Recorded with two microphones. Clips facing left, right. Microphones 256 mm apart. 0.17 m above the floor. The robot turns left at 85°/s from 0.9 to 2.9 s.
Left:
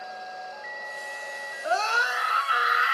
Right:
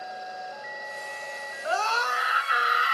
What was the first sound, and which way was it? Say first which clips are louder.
A scream: left 1 dB; 45° left.